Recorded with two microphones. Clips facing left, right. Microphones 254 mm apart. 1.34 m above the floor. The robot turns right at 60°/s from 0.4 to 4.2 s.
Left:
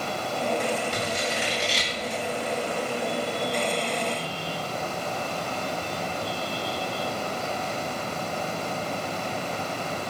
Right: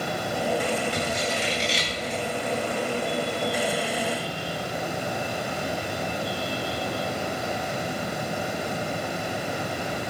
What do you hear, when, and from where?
0.9 s scissors: 50° left (ahead or behind), 8 m; by 2.2 s 30° right (ahead or behind), 8 m